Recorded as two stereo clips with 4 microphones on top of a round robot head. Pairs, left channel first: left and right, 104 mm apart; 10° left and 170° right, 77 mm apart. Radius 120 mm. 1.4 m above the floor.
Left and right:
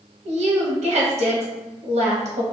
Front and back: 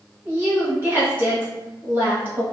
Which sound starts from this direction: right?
A woman speaking, at 0.2 s.